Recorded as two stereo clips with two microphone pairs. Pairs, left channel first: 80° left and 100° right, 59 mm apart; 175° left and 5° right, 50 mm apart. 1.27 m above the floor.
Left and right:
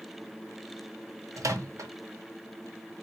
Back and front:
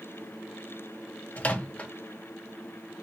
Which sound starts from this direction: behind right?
A microwave, at 1.4 s.